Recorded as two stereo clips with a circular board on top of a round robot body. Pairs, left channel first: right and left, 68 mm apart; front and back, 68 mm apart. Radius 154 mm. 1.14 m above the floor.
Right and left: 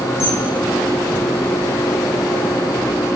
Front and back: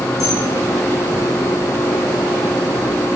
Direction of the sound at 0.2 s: 30° right.